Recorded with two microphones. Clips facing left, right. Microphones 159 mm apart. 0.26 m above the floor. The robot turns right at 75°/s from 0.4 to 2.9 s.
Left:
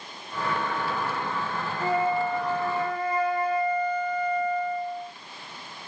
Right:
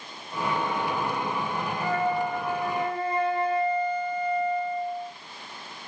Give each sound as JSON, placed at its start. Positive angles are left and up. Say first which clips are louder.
{"t": 1.8, "sound": "a flute", "louder": "left 2 dB", "azimuth_deg": 145, "distance_m": 0.8}